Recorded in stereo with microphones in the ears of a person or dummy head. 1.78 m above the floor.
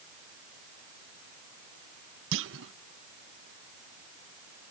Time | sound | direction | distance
2.3 | a clunk | 70° right (ahead or behind) | ?